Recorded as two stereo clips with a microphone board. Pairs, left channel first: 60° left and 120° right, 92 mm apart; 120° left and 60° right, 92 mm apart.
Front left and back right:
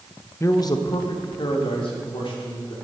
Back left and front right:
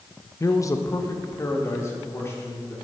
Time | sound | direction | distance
0.4 | a man speaking | 95° left | 0.5 m